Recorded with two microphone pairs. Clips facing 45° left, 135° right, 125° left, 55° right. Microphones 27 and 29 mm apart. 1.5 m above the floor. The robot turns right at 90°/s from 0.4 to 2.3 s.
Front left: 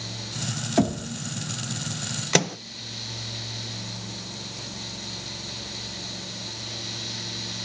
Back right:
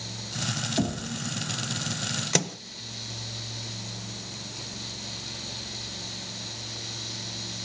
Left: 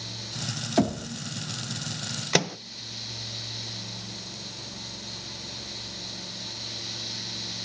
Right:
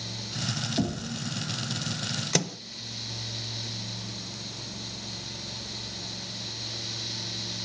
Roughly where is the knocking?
Left.